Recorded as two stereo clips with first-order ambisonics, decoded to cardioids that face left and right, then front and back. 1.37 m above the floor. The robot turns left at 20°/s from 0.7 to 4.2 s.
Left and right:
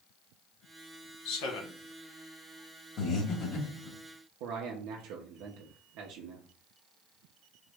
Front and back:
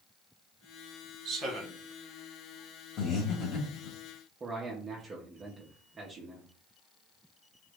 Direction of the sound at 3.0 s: 50° left.